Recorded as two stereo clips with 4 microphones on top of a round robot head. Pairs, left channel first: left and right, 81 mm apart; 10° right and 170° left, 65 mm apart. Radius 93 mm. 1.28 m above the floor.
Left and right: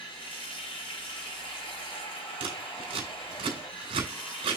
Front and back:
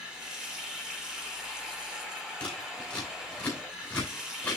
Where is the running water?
90° left, 2.5 m.